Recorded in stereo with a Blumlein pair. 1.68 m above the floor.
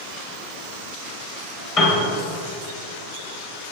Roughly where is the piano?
Ahead left.